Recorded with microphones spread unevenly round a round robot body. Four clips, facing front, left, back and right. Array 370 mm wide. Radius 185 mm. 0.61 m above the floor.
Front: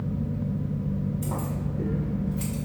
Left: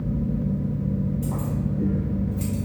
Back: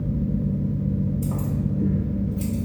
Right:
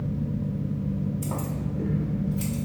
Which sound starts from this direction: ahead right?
Keys jangling, at 1.2 s.